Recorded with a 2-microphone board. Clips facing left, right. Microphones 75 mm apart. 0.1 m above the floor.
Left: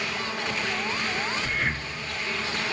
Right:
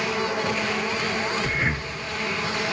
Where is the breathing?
20° right (ahead or behind), 0.9 m.